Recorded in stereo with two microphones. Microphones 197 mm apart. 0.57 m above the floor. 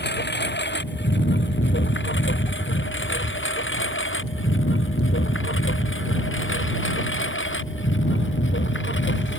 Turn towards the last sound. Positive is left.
turn(degrees=75)  # may be behind; listen again after turning